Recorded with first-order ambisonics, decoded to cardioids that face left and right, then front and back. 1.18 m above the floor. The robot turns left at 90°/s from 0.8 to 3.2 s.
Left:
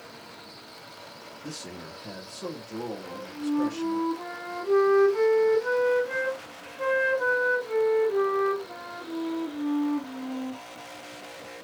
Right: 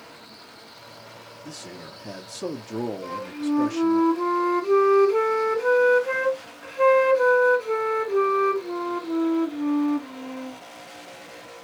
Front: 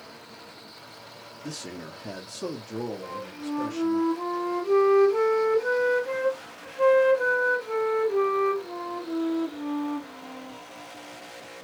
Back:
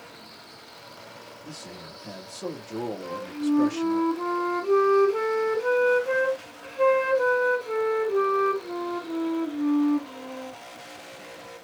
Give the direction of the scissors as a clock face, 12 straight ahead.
I don't hear scissors.